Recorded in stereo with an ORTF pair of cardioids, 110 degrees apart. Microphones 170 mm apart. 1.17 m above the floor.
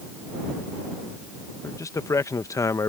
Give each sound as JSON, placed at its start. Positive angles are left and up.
{"t": 1.6, "sound": "a man speaking", "azimuth_deg": 20}